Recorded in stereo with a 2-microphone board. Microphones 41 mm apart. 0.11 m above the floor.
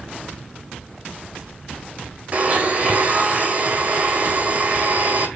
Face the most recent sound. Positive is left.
turn(degrees=-35)  # may be behind; listen again after turning